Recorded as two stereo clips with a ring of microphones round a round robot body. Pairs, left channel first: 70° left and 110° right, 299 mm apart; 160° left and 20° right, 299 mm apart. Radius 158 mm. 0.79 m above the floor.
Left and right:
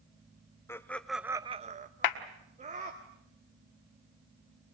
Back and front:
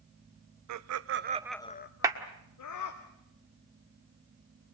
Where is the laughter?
15° right, 1.0 m; by 3.0 s straight behind, 1.8 m.